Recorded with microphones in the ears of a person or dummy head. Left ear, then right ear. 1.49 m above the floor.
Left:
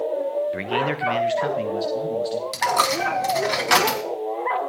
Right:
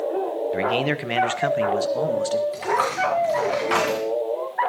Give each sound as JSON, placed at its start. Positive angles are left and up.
{"t": 0.5, "sound": "a man speaking", "side_deg": 0, "distance_m": 1.2}
{"t": 2.5, "sound": "a dropped coin", "side_deg": 40, "distance_m": 2.5}